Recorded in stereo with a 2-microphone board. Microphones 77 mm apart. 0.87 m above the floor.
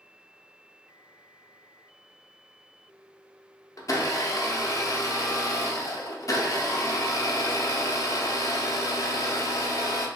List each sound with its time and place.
3.8 s a blender: 50° left (ahead or behind), 0.6 m